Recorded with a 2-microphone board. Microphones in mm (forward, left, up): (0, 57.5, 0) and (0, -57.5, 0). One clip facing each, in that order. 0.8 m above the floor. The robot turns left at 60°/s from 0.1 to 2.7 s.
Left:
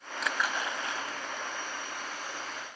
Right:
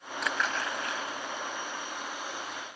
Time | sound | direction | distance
0.2 | a splash | straight behind | ?